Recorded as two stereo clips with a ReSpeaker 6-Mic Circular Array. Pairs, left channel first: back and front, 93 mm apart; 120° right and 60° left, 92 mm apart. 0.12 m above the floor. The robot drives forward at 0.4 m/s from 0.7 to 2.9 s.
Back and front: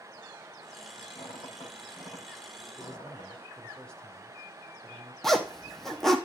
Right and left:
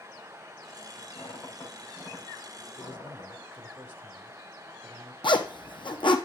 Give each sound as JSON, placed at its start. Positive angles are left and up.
{"t": 1.1, "sound": "a squeak", "azimuth_deg": 180, "distance_m": 5.0}
{"t": 2.8, "sound": "a man speaking", "azimuth_deg": 105, "distance_m": 1.8}
{"t": 5.2, "sound": "a zipper", "azimuth_deg": -95, "distance_m": 1.1}